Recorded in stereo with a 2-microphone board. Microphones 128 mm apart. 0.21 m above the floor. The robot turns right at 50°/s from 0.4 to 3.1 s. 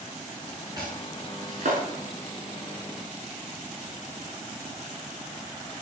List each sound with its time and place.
0.8 s chopping: 30° right (ahead or behind), 8.5 m; by 1.8 s 80° right, 8.5 m